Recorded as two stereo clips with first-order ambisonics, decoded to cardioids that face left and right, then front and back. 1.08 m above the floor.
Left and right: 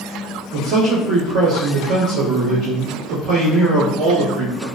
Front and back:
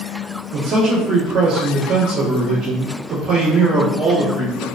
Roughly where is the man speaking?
Behind right.